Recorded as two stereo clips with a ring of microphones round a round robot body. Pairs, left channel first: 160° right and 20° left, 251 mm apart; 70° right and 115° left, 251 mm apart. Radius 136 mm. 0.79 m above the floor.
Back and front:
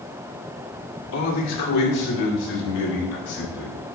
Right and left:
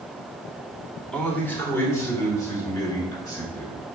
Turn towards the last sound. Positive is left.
turn(degrees=-140)